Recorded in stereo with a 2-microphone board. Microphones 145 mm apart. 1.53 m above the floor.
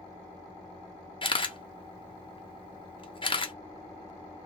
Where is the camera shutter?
35° left (ahead or behind), 0.5 m.